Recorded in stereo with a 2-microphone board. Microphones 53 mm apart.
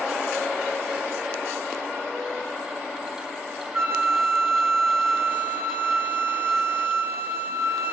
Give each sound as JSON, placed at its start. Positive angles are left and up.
{"t": 3.7, "sound": "a flute", "side_deg": -55, "distance_m": 1.1}